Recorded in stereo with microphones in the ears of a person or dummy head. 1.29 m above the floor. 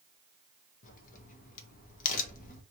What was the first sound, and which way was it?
A crack, 45° left (ahead or behind).